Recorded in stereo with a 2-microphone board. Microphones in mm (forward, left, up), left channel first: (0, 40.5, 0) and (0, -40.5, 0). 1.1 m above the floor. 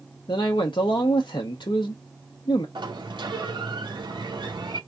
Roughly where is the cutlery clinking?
No cutlery clinking in this recording.